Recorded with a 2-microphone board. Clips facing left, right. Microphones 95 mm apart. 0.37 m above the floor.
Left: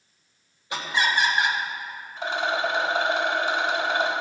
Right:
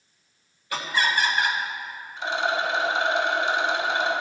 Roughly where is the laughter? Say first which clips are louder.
Even; left.